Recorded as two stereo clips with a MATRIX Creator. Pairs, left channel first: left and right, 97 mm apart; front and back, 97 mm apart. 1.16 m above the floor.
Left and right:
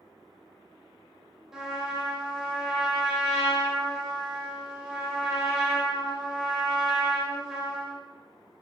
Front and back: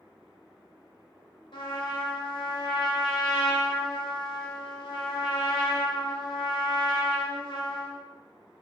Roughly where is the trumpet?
Ahead.